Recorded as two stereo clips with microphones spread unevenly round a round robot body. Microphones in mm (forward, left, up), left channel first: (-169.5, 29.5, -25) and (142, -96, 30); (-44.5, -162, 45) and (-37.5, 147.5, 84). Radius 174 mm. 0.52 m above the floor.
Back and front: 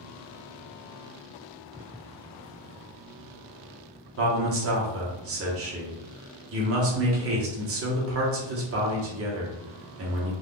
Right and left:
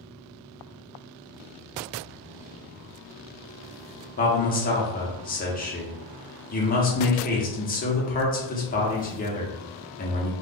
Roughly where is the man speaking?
Ahead right.